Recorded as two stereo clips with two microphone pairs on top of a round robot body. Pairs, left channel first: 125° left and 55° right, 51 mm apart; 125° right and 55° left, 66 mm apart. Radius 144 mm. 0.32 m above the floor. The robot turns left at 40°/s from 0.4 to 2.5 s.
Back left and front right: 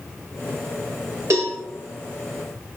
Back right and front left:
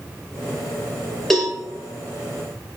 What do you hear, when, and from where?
1.3 s a cowbell: 35° right, 4.5 m; by 1.6 s 45° right, 4.5 m